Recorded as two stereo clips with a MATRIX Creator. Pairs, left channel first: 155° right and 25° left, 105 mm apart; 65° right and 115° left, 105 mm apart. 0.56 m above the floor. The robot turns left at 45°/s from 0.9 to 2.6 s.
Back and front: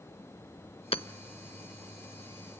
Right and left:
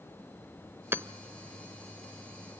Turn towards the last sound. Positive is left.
turn(degrees=105)